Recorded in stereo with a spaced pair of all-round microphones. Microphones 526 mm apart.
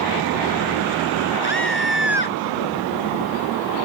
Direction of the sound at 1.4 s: 45° left (ahead or behind).